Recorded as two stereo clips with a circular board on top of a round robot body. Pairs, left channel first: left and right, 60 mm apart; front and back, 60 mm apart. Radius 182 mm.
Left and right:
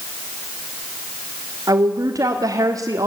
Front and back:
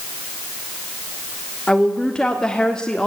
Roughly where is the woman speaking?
Right.